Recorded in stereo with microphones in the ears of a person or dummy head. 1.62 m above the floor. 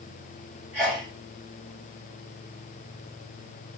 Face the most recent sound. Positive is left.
turn(degrees=-10)  # may be behind; listen again after turning